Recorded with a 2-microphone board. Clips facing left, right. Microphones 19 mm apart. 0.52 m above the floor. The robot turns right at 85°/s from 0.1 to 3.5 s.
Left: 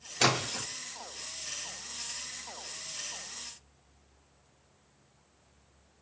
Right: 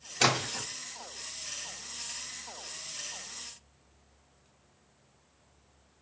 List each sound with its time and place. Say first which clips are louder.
0.2 s a splash: even; 5° left (ahead or behind), 1.6 m; by 0.7 s 30° left (ahead or behind), 1.6 m